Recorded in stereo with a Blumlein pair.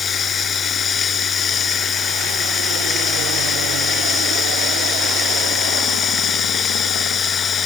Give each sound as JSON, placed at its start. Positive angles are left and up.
{"t": 0.0, "sound": "running water", "azimuth_deg": 20}